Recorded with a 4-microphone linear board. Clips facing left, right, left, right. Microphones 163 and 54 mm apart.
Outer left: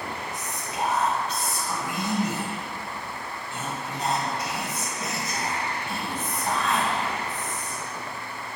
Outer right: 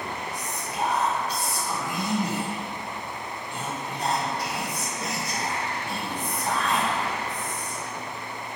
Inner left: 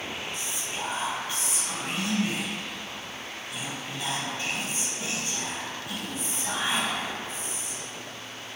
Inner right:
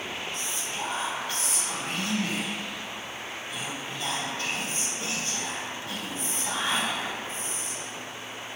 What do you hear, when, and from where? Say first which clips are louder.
0.3 s whispering: outer right 1 dB, inner right 1 dB; 20° left (ahead or behind), 0.9 m